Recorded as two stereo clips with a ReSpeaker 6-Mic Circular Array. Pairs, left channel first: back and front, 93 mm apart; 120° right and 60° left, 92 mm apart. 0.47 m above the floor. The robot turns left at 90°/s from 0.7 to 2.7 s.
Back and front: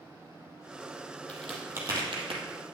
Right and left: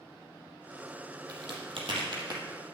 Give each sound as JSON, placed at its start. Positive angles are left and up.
{"t": 1.3, "sound": "a crack", "azimuth_deg": 105, "distance_m": 2.5}